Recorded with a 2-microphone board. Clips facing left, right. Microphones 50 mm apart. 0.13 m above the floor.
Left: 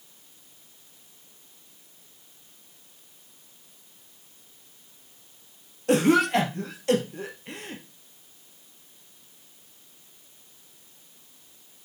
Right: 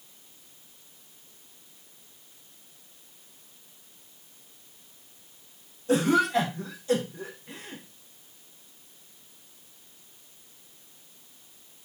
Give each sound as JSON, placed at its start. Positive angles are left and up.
{"t": 5.9, "sound": "a cough", "side_deg": 65, "distance_m": 2.5}